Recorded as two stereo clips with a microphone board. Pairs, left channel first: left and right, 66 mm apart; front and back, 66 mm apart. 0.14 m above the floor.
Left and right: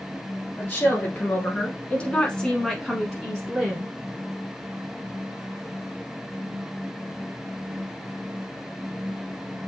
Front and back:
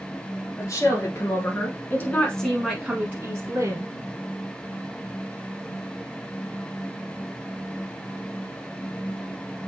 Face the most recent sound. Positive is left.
turn(degrees=-160)